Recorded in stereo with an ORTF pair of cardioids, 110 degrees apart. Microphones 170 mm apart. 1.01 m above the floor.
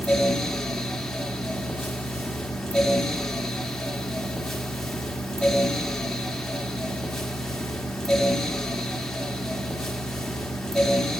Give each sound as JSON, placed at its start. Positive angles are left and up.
{"t": 0.0, "sound": "a fan", "azimuth_deg": 5, "distance_m": 1.5}